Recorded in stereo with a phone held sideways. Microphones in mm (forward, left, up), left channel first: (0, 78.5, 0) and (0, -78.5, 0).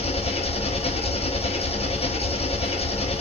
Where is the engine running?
40° left (ahead or behind), 0.9 m.